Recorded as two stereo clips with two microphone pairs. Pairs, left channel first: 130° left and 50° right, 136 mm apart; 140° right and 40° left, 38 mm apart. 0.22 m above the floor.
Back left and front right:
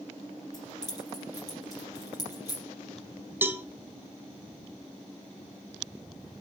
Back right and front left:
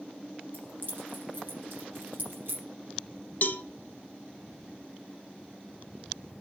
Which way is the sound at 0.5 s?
70° left.